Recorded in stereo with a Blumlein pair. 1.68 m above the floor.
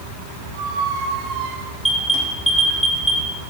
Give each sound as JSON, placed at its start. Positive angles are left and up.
{"t": 0.5, "sound": "a squeak", "azimuth_deg": -40, "distance_m": 2.5}
{"t": 1.8, "sound": "an alarm", "azimuth_deg": -5, "distance_m": 5.0}